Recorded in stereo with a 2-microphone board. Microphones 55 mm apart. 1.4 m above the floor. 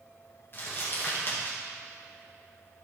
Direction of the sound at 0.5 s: 40° left (ahead or behind).